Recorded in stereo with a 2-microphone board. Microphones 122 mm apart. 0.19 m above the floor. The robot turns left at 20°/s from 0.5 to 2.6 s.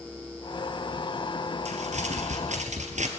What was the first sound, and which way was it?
Crumpling, 65° right (ahead or behind).